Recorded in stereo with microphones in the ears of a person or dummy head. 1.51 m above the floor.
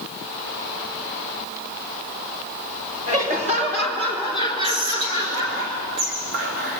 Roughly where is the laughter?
Right.